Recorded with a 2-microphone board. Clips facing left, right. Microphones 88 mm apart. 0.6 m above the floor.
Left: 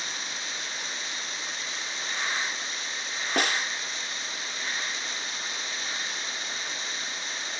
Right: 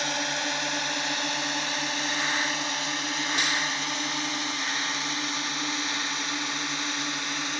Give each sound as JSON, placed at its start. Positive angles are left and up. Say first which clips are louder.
{"t": 0.0, "sound": "a drone", "louder": "right 8 dB", "side_deg": -70}
{"t": 3.4, "sound": "a snare drum", "louder": "left 4 dB", "side_deg": 55}